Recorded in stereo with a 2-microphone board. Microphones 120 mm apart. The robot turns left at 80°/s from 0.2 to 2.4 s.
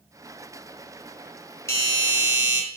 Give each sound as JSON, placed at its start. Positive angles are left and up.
{"t": 1.7, "sound": "a doorbell", "azimuth_deg": 140, "distance_m": 1.7}